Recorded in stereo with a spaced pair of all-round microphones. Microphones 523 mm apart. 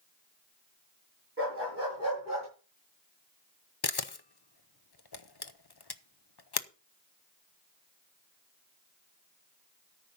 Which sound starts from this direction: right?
A dog barking, at 1.4 s.